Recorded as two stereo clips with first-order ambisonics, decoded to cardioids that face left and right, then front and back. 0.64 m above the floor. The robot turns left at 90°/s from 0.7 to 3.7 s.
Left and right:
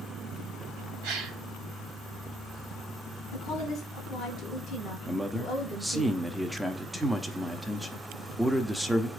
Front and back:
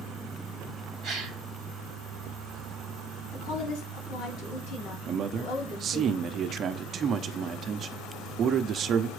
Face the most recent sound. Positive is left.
turn(degrees=180)